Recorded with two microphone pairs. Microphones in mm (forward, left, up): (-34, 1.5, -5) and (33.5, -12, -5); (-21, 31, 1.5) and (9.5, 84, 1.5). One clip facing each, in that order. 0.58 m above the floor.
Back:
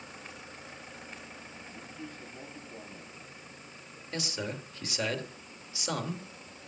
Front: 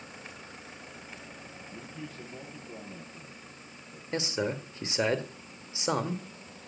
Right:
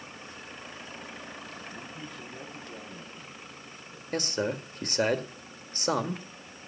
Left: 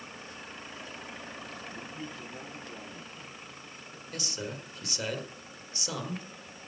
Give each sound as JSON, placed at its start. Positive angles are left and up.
{"t": 1.7, "sound": "a man speaking", "azimuth_deg": -20, "distance_m": 9.5}
{"t": 4.1, "sound": "a man speaking", "azimuth_deg": -75, "distance_m": 1.5}